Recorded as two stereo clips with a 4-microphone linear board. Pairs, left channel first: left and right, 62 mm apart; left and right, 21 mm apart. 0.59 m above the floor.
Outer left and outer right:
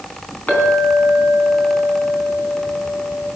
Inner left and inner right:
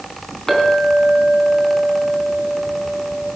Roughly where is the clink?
Left.